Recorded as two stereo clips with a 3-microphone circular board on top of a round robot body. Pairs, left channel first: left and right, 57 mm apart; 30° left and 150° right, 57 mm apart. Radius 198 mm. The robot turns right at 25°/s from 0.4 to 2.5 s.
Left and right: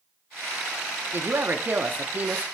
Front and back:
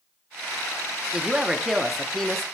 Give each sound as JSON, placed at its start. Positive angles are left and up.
{"t": 1.1, "sound": "a woman speaking", "azimuth_deg": -85, "distance_m": 0.9}